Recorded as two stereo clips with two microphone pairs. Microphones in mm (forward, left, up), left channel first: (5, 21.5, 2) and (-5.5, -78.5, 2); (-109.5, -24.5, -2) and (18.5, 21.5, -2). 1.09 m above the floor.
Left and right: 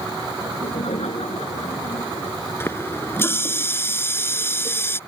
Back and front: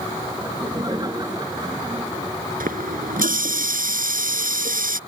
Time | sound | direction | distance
0.4 | laughter | 85° left | ?
2.6 | a running tap | 15° left | ?